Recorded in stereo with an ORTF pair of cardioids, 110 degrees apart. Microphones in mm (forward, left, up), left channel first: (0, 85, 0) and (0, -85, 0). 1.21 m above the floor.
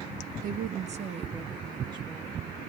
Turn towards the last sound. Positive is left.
turn(degrees=-25)